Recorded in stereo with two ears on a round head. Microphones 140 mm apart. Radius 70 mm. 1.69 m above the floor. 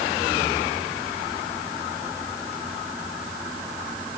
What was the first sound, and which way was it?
Only background noise.